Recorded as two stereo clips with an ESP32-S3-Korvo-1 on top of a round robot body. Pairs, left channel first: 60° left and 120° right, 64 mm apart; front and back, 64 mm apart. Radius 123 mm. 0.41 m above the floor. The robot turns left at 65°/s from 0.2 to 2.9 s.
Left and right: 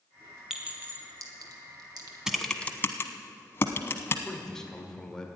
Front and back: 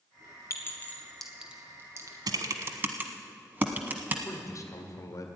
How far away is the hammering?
No hammering in this recording.